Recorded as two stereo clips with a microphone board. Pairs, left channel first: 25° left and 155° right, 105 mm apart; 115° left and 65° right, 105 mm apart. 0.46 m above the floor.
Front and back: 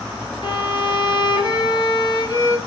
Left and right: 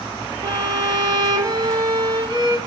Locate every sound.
0.4 s a violin: 20° right, 0.8 m